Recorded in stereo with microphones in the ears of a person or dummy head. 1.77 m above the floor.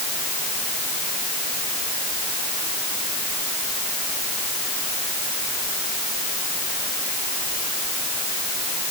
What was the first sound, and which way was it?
Only background noise.